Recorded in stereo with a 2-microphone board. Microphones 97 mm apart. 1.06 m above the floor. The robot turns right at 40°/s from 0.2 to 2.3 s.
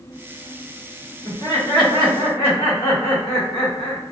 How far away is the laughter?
About 1.2 m.